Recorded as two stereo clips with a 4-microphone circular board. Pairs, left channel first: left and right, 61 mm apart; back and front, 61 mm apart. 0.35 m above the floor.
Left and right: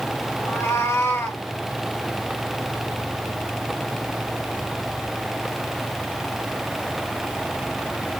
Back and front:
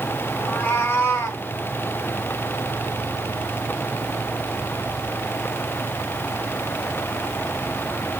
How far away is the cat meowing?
About 1.8 m.